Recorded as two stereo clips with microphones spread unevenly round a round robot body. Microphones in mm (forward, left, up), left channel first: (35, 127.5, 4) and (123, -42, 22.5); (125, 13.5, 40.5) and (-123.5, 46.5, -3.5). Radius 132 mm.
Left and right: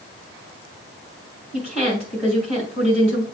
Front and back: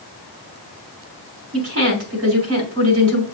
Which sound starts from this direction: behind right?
A woman speaking, at 1.5 s.